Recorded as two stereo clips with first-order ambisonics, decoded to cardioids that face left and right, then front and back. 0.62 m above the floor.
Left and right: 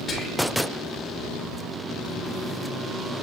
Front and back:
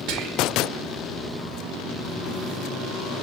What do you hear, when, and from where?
0.1 s whispering: 155° left, 3.5 m